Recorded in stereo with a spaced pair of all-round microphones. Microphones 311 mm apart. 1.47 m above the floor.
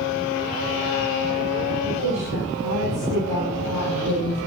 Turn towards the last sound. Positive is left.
turn(degrees=-85)